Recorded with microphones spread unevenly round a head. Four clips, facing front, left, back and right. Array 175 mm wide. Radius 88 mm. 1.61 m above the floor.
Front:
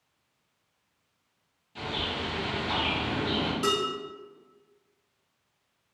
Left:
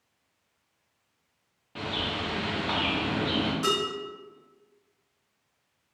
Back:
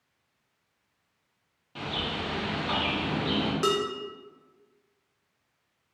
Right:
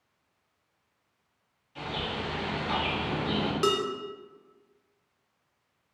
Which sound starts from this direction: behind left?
A bird, at 1.8 s.